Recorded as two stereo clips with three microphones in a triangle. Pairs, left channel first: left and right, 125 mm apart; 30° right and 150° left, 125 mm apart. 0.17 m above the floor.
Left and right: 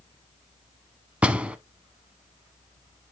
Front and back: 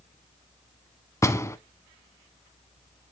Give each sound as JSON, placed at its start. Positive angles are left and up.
{"t": 1.2, "sound": "a door slam", "azimuth_deg": -25, "distance_m": 0.7}